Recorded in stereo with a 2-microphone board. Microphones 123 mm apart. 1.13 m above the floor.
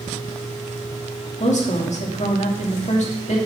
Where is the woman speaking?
70° left (ahead or behind), 2 m.